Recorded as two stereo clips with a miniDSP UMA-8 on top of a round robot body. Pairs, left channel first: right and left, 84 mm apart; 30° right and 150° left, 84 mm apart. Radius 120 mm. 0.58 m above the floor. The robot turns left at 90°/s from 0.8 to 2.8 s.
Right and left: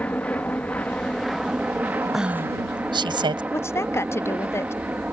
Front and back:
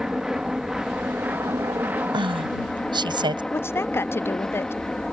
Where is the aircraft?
135° right; by 5.1 s 45° left.